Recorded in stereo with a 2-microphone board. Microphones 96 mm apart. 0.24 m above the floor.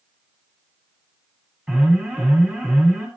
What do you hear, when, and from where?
1.7 s an alarm: 15° right (ahead or behind), 5 m